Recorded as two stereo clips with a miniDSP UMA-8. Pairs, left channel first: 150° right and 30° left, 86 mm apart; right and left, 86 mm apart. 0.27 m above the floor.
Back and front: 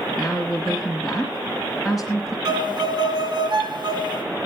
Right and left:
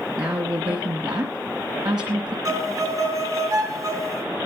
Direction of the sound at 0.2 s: 120° left.